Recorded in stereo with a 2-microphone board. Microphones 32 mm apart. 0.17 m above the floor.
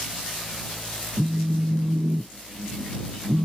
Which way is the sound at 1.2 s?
75° right (ahead or behind).